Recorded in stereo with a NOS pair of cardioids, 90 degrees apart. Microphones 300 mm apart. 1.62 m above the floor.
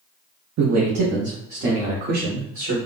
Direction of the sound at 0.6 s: 60° right.